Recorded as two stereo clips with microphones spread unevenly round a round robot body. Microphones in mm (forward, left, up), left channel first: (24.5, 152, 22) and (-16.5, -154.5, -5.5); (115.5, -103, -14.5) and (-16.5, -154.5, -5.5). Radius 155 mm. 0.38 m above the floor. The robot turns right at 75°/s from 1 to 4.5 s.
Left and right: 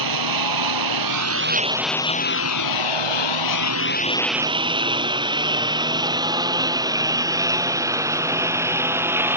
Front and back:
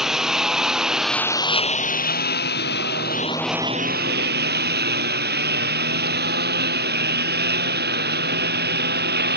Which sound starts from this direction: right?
A lawn mower, at 0.0 s.